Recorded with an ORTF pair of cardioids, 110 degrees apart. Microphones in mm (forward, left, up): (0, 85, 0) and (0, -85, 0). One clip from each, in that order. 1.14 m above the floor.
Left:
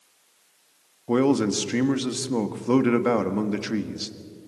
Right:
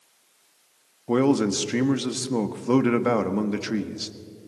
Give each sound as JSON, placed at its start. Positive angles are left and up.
{"t": 1.1, "sound": "a man speaking", "azimuth_deg": 0, "distance_m": 1.5}